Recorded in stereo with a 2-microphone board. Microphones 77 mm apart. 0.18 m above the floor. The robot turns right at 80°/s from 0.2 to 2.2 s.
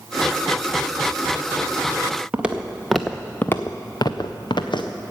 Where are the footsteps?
15° right (ahead or behind), 1.3 m; by 4.9 s 85° left, 1.3 m.